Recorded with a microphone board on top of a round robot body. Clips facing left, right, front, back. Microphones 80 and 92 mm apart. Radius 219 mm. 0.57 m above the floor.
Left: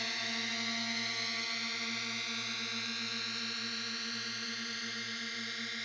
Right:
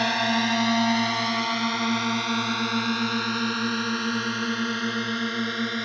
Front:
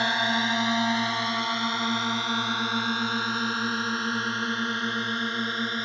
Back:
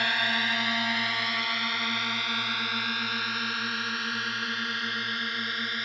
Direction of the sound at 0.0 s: 65° right.